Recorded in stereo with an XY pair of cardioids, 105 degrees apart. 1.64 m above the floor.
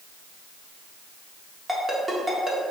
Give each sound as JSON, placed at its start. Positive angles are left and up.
{"t": 1.7, "sound": "a ringtone", "azimuth_deg": -10, "distance_m": 1.7}